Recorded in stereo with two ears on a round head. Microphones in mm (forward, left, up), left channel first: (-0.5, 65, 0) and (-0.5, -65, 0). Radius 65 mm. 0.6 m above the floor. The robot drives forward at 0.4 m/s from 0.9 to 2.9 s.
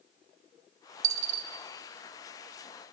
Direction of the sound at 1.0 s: 50° right (ahead or behind).